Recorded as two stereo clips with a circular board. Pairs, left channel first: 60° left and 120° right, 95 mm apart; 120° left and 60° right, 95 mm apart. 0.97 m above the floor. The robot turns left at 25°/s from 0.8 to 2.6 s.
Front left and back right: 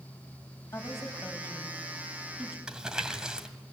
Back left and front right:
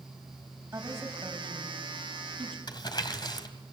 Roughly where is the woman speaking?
Ahead.